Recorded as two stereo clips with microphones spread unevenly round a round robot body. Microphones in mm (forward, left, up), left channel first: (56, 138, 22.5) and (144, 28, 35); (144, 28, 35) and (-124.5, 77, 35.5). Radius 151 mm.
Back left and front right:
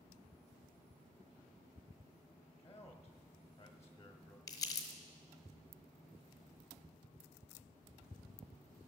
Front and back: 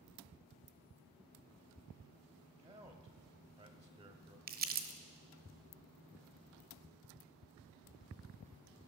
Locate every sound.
2.6 s a man speaking: 110° left, 0.9 m
4.5 s crumpling: 155° left, 0.9 m